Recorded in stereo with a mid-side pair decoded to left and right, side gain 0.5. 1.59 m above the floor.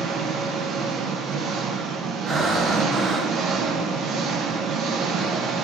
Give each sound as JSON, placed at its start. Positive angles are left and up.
{"t": 0.0, "sound": "an engine running", "azimuth_deg": -65, "distance_m": 1.1}
{"t": 2.3, "sound": "breathing", "azimuth_deg": -40, "distance_m": 1.4}